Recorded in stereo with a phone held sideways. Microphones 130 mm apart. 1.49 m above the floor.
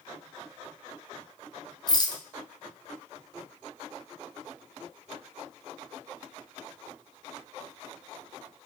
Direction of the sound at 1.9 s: 30° left (ahead or behind).